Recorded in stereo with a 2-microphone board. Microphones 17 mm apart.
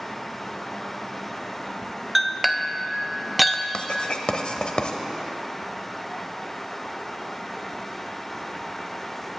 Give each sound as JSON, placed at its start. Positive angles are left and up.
{"t": 2.1, "sound": "a clink", "side_deg": 0, "distance_m": 0.5}
{"t": 3.7, "sound": "writing", "side_deg": 70, "distance_m": 0.8}